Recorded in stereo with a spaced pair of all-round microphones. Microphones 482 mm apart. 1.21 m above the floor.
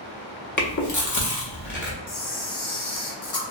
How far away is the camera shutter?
About 0.6 m.